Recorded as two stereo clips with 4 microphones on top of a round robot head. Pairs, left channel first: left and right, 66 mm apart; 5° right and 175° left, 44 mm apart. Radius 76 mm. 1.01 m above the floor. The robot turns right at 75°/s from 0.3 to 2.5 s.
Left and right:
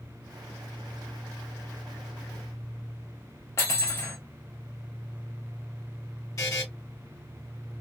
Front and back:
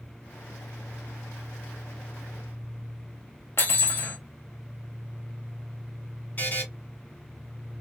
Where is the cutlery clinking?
30° left, 1.2 m.